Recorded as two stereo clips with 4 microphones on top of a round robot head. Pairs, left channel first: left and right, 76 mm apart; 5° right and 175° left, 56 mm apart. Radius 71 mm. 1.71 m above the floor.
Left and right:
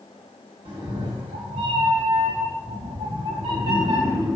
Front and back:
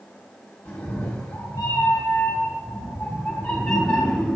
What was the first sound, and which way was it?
A cat meowing, 65° right.